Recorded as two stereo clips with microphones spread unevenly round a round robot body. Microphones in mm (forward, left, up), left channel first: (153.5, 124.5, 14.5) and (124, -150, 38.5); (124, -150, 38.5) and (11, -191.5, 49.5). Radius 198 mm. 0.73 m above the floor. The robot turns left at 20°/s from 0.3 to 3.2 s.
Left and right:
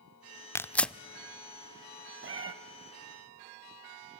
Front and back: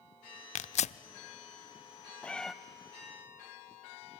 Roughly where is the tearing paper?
Ahead.